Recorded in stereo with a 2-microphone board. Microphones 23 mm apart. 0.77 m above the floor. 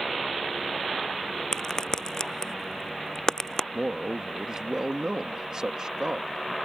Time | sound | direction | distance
1.5 | a crack | 30° left (ahead or behind) | ?
3.7 | a man speaking | 35° right (ahead or behind) | ?